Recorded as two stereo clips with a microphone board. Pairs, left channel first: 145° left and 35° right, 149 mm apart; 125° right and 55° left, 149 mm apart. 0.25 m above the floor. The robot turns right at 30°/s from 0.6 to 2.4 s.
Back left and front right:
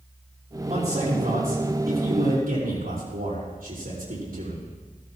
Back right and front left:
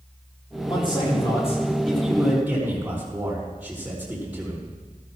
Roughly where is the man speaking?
Right.